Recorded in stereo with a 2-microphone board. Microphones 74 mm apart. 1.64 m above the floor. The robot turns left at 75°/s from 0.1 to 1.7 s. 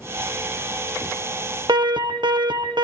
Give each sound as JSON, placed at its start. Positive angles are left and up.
{"t": 1.7, "sound": "an alarm", "side_deg": -75, "distance_m": 1.8}